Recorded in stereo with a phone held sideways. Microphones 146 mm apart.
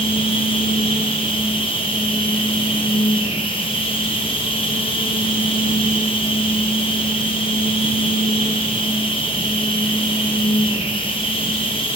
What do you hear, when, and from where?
0.0 s a machine running: 40° left (ahead or behind), 1.1 m